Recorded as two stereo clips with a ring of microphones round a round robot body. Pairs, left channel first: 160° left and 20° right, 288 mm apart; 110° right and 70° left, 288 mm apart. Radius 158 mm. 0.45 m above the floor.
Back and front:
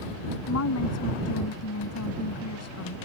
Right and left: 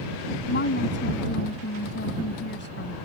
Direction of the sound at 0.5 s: 165° right.